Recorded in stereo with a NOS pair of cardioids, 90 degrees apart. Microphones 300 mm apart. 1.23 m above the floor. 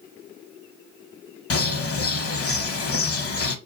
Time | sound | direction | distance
1.5 | a bird | 45° left | 0.9 m